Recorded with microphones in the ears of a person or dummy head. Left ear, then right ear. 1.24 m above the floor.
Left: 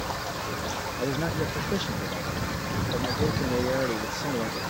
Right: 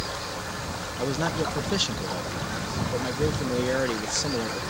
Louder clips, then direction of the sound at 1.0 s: Right 4 dB; 25° right (ahead or behind).